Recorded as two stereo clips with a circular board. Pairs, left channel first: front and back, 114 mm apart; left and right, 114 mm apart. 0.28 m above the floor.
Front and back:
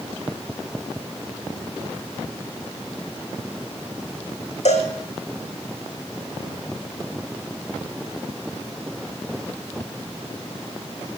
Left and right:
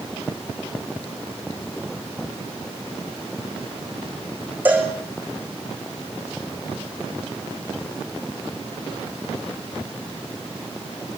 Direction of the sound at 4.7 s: 15° right.